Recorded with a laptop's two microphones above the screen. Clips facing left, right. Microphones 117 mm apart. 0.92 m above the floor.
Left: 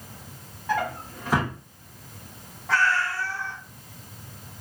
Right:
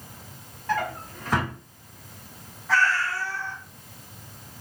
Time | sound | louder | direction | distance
0.7 | a drawer | left 1 dB | 10° left (ahead or behind) | 0.9 m
2.7 | a cat meowing | even | 55° left (ahead or behind) | 1.1 m